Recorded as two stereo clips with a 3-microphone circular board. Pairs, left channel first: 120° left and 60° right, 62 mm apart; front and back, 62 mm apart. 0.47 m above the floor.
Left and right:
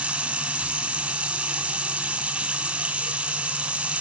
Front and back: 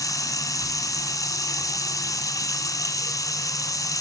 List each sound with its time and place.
0.0 s running water: 15° left, 2.5 m